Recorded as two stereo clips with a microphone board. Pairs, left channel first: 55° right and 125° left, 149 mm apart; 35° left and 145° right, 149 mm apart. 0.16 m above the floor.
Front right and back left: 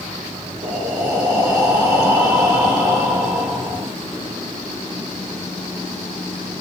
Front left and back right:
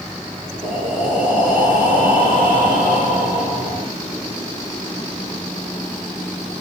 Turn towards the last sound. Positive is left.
turn(degrees=-165)